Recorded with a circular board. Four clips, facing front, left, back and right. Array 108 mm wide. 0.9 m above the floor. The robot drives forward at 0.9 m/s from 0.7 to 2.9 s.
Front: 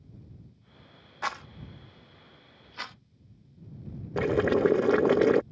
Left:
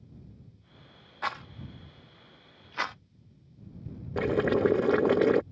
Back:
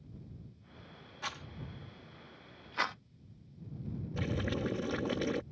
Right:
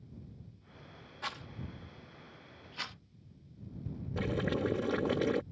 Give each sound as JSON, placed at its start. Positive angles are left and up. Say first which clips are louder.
{"t": 1.2, "sound": "a rattle", "louder": "left 8 dB, front 9 dB", "azimuth_deg": 40}
{"t": 4.2, "sound": "boiling", "louder": "left 9 dB, front 13 dB", "azimuth_deg": 35}